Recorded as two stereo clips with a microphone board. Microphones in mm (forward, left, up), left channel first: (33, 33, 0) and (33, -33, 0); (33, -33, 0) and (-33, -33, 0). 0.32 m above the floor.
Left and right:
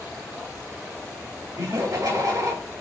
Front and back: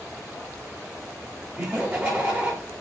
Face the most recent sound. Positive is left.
turn(degrees=-125)